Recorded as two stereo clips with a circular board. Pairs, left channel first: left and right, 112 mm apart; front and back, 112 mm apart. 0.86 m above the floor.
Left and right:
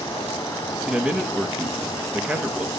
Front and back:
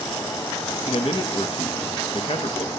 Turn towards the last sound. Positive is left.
turn(degrees=-10)